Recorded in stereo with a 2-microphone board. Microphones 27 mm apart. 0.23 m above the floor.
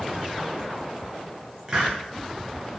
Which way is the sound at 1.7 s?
35° right (ahead or behind).